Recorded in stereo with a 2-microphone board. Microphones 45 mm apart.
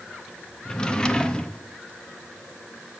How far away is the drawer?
About 0.6 m.